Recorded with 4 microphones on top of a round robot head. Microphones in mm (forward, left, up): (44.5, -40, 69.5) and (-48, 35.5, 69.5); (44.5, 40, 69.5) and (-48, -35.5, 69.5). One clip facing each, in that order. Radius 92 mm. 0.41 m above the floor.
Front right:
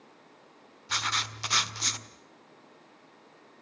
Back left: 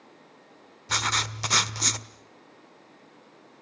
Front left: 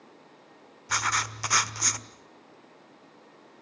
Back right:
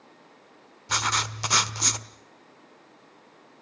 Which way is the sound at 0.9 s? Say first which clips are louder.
Back left 4 dB, back right 1 dB; 160° left.